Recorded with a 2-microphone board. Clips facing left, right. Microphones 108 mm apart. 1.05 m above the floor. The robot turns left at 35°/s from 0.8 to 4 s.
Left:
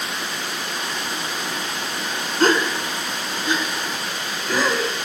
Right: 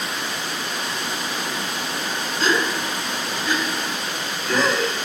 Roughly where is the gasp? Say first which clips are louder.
Left 4 dB; left.